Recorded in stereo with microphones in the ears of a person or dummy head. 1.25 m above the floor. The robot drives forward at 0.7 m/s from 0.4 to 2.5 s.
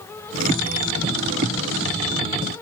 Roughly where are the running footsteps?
No running footsteps in this recording.